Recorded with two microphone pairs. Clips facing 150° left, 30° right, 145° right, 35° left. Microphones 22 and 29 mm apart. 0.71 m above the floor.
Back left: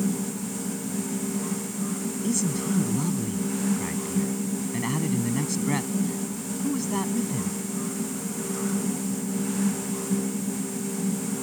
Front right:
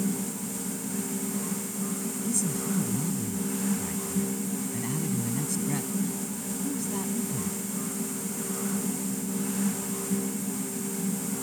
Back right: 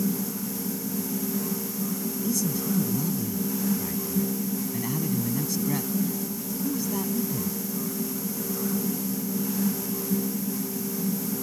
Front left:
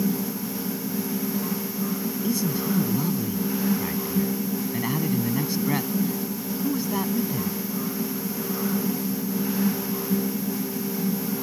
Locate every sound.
2.2 s a man speaking: 85° left